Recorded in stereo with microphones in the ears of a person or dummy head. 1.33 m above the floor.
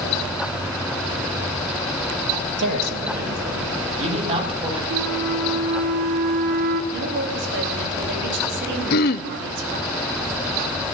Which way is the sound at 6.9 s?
65° right (ahead or behind).